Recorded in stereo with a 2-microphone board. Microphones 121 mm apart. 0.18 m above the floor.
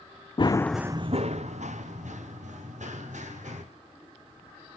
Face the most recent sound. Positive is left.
turn(degrees=-85)